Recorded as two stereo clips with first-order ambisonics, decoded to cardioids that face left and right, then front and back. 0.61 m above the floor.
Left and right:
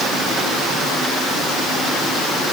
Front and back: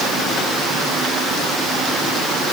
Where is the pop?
No pop in this recording.